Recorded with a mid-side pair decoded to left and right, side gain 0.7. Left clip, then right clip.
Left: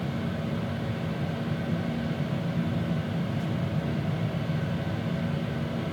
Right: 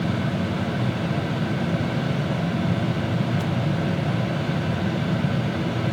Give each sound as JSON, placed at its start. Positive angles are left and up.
{"t": 0.0, "sound": "a fan", "azimuth_deg": -55, "distance_m": 0.9}